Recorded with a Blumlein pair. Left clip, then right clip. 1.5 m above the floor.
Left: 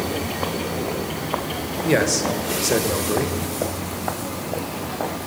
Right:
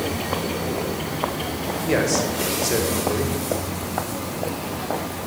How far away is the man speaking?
About 1.2 m.